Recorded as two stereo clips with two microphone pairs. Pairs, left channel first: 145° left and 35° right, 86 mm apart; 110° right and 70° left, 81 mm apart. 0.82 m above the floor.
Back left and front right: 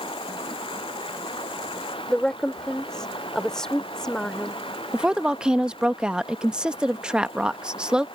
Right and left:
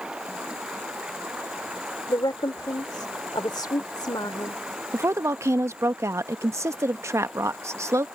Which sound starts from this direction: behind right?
A woman speaking, at 2.1 s.